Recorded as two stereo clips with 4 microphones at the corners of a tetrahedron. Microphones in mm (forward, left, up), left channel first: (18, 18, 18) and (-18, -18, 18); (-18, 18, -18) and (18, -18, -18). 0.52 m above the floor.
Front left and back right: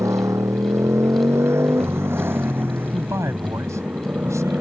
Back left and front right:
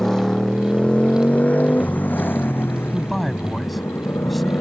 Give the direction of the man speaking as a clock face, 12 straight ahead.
5 o'clock.